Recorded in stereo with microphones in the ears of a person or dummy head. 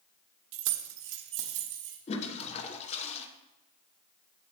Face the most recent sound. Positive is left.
turn(degrees=30)  # may be behind; listen again after turning